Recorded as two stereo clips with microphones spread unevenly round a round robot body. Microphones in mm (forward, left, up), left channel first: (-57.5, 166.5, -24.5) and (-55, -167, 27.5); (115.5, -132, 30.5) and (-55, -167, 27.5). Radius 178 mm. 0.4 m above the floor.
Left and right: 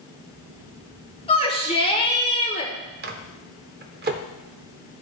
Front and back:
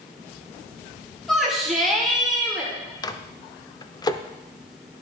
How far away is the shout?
About 1.4 m.